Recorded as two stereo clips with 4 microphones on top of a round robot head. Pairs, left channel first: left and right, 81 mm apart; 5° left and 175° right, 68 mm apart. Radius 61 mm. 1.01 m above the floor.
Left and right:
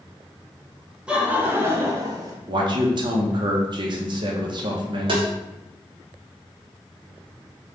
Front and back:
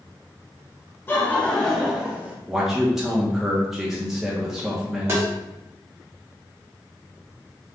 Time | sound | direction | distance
1.1 | laughter | 25° right | 0.9 m
2.5 | a man speaking | 90° right | 0.9 m
5.1 | tapping | 115° right | 1.4 m